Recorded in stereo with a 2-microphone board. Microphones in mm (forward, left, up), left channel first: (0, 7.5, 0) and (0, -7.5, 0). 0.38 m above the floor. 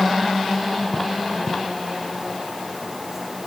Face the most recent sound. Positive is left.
No sound to turn to.